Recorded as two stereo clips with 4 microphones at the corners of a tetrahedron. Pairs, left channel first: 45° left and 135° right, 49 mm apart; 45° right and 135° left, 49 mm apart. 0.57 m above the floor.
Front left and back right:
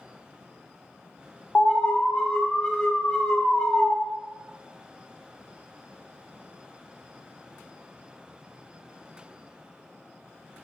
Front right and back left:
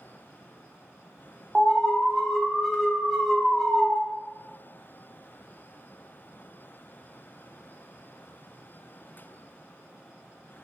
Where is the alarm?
55° left, 0.5 m.